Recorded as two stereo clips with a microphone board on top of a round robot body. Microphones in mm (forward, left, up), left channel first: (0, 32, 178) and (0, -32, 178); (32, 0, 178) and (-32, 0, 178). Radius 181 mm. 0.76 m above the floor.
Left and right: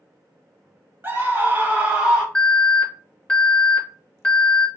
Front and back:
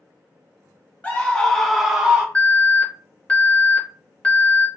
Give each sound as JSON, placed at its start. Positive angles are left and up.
{"t": 1.0, "sound": "a scream", "azimuth_deg": -55, "distance_m": 1.3}
{"t": 2.4, "sound": "an alarm", "azimuth_deg": 50, "distance_m": 1.6}